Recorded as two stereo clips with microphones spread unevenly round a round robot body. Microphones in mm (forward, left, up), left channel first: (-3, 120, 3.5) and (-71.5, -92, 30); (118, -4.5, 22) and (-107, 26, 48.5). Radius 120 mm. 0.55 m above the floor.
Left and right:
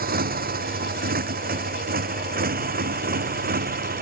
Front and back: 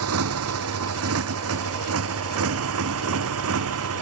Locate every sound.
0.0 s a motorcycle: 160° right